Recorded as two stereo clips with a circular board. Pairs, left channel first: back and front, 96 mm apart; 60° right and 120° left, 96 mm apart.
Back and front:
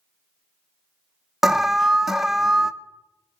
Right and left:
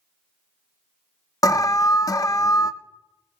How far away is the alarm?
About 0.5 m.